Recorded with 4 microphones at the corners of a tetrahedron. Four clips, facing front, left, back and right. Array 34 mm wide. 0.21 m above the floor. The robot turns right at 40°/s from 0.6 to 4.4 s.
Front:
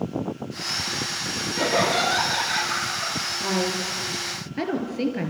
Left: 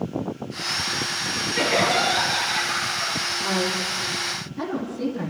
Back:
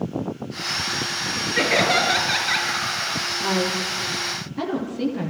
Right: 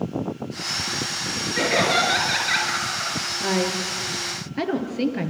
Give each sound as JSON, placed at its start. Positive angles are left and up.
{"t": 1.6, "sound": "laughter", "azimuth_deg": -175, "distance_m": 4.0}
{"t": 3.4, "sound": "a woman speaking", "azimuth_deg": -95, "distance_m": 3.5}